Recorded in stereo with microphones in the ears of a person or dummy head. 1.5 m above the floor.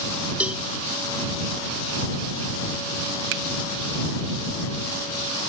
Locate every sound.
0.4 s a cowbell: 10° right (ahead or behind)
3.3 s a finger snap: 70° right (ahead or behind)